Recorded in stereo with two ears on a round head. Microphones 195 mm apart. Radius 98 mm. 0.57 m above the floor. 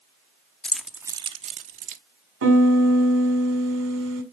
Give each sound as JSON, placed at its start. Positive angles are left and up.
{"t": 0.6, "sound": "keys jangling", "side_deg": 5, "distance_m": 0.8}
{"t": 2.4, "sound": "a piano", "side_deg": -60, "distance_m": 2.0}